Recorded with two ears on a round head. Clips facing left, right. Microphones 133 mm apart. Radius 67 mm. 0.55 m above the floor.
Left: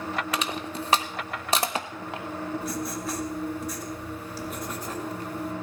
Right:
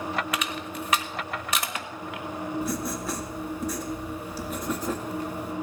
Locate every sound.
0.3 s crushing: 25° left (ahead or behind), 0.7 m
2.6 s writing: 80° right, 1.8 m